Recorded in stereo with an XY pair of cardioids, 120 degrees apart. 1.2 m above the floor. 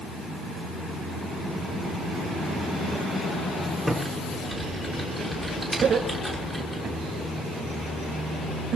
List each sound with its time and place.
3.9 s typing on a keyboard: 5° right, 6 m
5.8 s laughter: 55° right, 4.5 m